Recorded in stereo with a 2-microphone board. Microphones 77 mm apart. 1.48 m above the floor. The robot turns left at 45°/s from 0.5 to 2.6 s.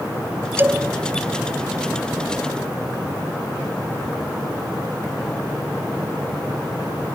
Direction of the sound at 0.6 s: 25° right (ahead or behind).